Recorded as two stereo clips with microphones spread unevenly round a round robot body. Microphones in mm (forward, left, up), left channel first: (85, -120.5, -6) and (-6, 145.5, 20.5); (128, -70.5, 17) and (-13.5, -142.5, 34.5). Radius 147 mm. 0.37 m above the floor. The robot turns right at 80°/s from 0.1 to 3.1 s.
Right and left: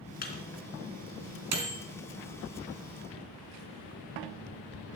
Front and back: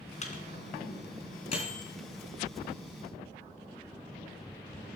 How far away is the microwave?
About 3.5 m.